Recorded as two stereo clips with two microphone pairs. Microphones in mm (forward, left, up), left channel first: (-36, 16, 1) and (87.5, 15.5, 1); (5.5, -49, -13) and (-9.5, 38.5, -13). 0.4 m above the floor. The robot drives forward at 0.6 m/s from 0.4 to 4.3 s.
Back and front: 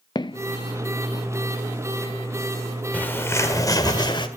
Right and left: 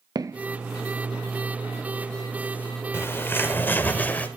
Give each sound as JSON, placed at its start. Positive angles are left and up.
{"t": 0.1, "sound": "footsteps", "azimuth_deg": 125, "distance_m": 0.5}
{"t": 2.9, "sound": "a bird", "azimuth_deg": -110, "distance_m": 1.4}